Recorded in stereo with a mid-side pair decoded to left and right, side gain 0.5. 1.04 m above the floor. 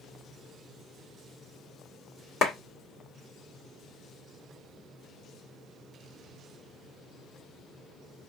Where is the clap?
45° left, 2 m.